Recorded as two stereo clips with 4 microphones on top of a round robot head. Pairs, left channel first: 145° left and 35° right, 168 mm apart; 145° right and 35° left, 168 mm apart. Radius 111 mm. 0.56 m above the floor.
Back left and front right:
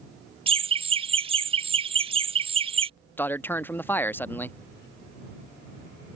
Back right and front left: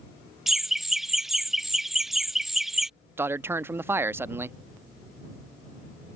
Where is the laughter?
50° right.